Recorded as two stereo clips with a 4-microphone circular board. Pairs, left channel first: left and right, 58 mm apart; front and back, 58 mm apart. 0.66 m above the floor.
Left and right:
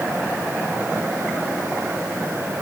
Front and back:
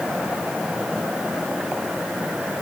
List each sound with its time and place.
Only background noise.